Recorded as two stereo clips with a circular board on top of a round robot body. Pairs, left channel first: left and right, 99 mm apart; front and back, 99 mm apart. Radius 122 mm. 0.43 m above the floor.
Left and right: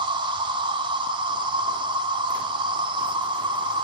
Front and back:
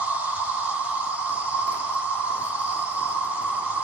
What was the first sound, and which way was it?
An insect, 105° right.